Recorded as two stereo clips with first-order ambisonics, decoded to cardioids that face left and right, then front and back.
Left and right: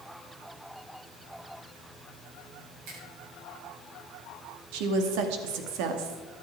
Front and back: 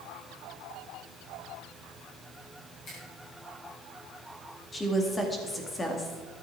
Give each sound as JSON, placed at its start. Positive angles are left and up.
{"t": 2.9, "sound": "a finger snap", "azimuth_deg": -55, "distance_m": 7.0}
{"t": 4.7, "sound": "a woman speaking", "azimuth_deg": -75, "distance_m": 2.5}